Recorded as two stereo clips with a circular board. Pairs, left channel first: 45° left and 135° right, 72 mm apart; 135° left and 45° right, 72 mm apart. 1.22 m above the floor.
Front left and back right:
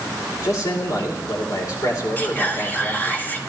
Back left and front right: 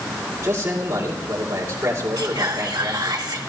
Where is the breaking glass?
No breaking glass in this recording.